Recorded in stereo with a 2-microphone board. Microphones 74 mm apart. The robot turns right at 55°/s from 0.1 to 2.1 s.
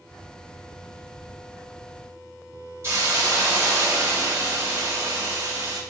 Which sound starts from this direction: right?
A hiss, at 2.8 s.